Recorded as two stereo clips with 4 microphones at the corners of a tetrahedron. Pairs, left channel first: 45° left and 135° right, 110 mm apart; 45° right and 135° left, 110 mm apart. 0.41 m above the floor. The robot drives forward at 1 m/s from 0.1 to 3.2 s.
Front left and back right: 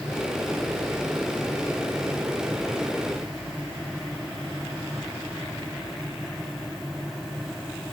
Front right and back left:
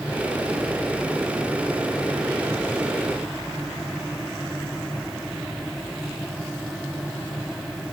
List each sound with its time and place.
Only background noise.